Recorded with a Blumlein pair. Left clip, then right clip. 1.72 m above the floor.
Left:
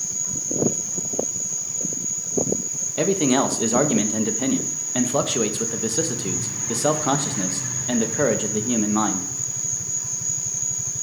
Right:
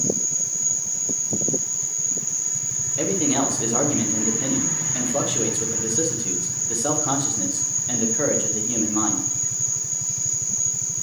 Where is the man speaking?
20° left, 1.3 m.